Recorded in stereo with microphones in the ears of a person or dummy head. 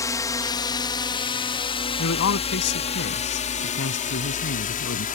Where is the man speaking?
65° left (ahead or behind).